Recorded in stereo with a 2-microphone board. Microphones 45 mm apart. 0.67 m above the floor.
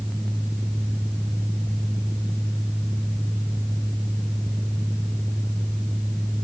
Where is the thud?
I don't hear a thud.